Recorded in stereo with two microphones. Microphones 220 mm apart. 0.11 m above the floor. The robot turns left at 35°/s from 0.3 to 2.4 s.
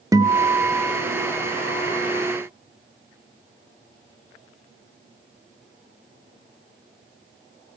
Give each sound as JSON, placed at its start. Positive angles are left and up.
{"t": 0.1, "sound": "a guitar", "azimuth_deg": -160, "distance_m": 1.6}